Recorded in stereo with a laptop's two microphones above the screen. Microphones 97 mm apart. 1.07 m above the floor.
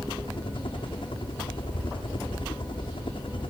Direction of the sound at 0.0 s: 60° left (ahead or behind).